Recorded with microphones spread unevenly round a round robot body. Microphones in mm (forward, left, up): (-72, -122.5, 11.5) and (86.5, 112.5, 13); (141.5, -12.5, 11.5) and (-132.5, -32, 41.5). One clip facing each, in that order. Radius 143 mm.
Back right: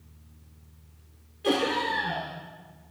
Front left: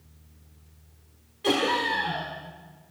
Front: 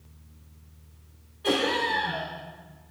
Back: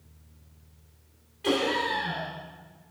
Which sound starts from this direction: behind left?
Laughter, at 1.4 s.